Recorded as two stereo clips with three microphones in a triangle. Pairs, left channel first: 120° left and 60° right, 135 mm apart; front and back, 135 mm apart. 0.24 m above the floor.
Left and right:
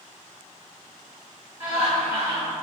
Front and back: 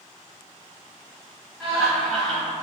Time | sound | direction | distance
1.6 | laughter | 100° right | 1.2 m